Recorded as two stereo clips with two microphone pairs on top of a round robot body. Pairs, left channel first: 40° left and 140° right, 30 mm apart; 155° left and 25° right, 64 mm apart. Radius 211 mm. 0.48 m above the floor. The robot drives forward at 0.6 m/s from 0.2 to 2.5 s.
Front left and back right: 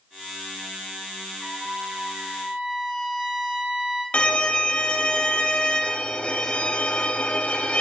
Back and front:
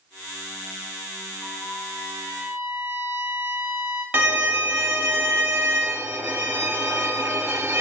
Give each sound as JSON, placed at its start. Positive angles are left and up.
{"t": 1.4, "sound": "a trumpet", "azimuth_deg": 165, "distance_m": 3.0}
{"t": 4.1, "sound": "a violin", "azimuth_deg": 20, "distance_m": 1.1}